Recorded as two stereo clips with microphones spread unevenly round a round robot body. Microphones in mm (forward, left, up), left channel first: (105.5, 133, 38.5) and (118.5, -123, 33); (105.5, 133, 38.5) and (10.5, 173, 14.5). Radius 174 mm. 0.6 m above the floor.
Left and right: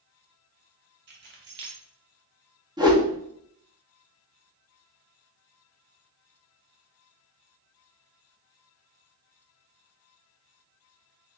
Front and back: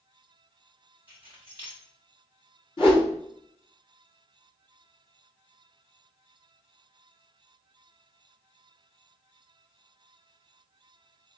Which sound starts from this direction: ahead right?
A whoosh, at 2.8 s.